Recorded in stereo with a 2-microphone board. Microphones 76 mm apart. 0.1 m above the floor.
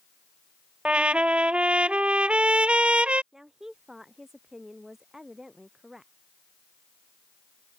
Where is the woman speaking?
5° right (ahead or behind).